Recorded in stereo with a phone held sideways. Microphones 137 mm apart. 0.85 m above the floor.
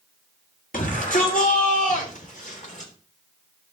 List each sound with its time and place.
0.7 s a shout: 75° left (ahead or behind), 3.5 m; by 2.9 s 65° left (ahead or behind), 3.5 m